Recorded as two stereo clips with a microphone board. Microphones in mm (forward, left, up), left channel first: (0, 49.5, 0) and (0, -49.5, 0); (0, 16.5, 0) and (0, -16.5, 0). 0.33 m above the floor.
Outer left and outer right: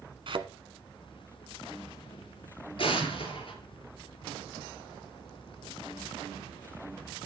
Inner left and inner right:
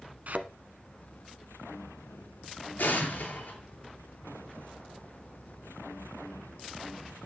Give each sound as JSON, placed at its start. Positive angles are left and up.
{"t": 0.3, "sound": "a thud", "side_deg": -60, "distance_m": 0.9}
{"t": 2.8, "sound": "an explosion", "side_deg": 60, "distance_m": 3.5}